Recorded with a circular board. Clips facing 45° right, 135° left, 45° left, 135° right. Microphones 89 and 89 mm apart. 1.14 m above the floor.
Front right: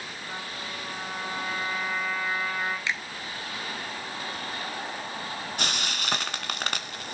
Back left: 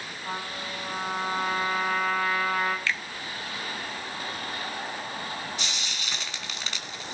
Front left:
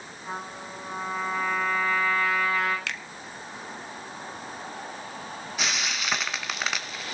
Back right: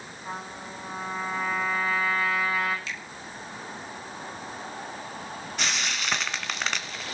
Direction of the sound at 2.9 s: 25° left.